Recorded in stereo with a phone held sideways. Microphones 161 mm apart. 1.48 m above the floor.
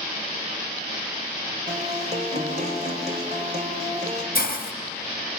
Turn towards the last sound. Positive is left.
turn(degrees=60)  # may be behind; listen again after turning